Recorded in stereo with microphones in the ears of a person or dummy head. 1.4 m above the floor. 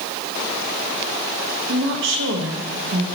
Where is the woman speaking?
70° right (ahead or behind), 1.7 m.